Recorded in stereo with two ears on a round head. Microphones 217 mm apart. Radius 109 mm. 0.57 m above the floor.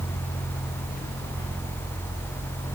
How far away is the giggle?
I don't hear a giggle.